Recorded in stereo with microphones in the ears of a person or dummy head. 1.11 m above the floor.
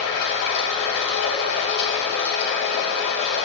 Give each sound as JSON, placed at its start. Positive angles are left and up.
{"t": 0.0, "sound": "running water", "side_deg": 65, "distance_m": 2.5}